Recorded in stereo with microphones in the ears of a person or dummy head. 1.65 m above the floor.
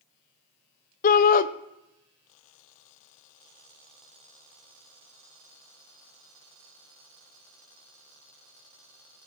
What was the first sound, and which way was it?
A shout, 40° left (ahead or behind).